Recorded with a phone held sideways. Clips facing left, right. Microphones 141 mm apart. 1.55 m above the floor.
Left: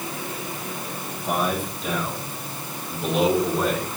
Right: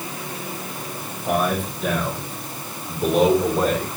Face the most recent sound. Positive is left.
turn(degrees=-35)  # may be behind; listen again after turning